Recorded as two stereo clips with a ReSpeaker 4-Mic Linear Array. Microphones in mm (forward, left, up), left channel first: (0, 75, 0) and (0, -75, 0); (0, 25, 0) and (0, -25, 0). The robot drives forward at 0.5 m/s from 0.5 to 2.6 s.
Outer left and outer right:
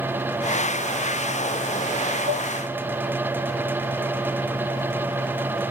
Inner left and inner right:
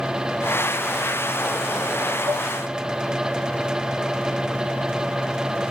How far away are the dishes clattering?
About 4 m.